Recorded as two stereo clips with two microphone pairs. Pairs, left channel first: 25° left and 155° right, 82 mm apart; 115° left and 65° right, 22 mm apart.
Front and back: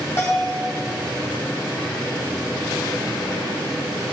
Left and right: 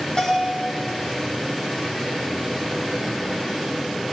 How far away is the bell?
About 2.5 m.